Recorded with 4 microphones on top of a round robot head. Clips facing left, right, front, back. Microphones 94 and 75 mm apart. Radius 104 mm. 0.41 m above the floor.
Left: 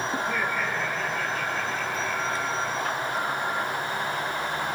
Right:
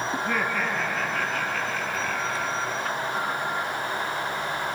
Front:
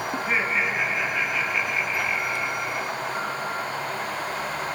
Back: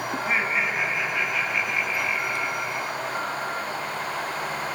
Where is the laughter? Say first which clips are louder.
Right 2 dB, even; 95° right, 5 m.